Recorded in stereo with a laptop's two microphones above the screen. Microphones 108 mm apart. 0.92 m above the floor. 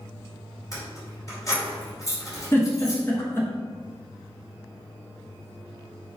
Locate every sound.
0.7 s keys jangling: 35° left (ahead or behind), 2.5 m
2.5 s a giggle: 20° left (ahead or behind), 1.1 m